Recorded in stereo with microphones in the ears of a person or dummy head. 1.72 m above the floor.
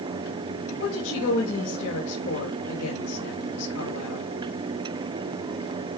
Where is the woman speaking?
75° left (ahead or behind), 2.5 m.